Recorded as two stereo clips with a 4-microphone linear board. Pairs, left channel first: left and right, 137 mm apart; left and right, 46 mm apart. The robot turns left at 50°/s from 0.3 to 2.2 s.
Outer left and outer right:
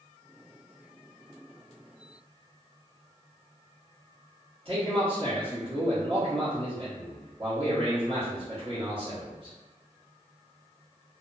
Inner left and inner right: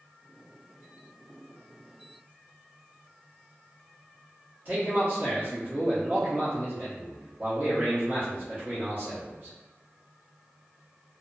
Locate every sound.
4.7 s a man speaking: 40° right (ahead or behind), 0.9 m